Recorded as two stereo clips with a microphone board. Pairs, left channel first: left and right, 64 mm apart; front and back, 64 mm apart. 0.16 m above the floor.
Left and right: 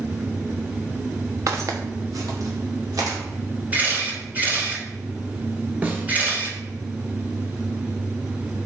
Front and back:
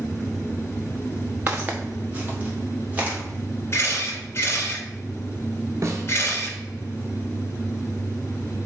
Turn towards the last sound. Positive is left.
turn(degrees=-150)